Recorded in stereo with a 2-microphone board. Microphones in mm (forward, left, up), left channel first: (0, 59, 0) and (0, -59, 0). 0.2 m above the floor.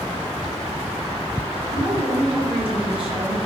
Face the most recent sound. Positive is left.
turn(degrees=-55)  # may be behind; listen again after turning